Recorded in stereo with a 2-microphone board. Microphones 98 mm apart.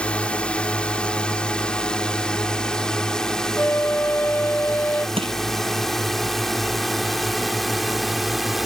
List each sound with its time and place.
0.0 s a drone: 10° left (ahead or behind); by 8.7 s centre (ahead or behind)
3.6 s a flute: 20° left (ahead or behind)
5.2 s crushing: 70° right (ahead or behind)